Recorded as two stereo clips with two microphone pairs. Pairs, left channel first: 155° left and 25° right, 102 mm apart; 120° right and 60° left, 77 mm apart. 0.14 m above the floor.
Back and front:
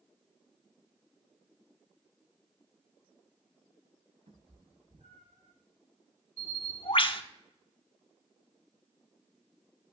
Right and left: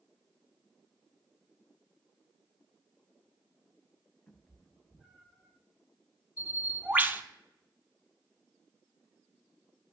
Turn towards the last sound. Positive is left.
turn(degrees=125)